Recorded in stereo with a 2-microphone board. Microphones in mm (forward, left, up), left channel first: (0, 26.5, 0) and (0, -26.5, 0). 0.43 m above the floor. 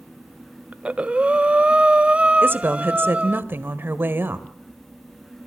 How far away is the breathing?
About 0.5 m.